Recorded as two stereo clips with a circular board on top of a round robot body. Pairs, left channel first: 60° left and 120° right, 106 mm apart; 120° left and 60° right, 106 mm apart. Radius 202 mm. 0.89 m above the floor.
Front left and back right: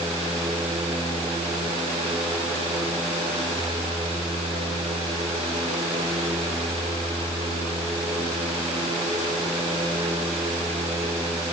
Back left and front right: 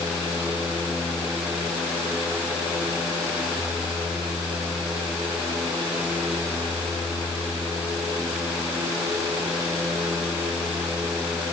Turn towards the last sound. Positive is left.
No sound to turn to.